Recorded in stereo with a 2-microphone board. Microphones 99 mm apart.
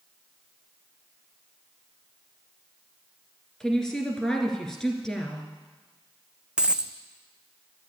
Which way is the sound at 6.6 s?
10° right (ahead or behind).